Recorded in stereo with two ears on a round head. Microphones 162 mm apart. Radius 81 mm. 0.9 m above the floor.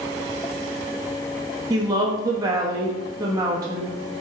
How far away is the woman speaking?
About 1.2 m.